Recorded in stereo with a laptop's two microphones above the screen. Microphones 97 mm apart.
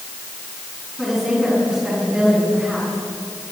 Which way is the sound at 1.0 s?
5° right (ahead or behind).